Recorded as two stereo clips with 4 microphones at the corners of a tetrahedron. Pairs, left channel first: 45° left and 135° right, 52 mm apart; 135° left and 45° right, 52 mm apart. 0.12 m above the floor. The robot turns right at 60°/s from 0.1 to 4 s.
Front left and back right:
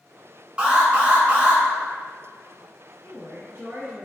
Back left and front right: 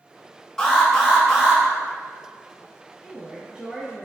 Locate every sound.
0.6 s an alarm: 170° right, 0.8 m; by 1.6 s 105° right, 0.8 m
3.0 s a woman speaking: 140° right, 1.7 m; by 4.0 s 80° right, 1.7 m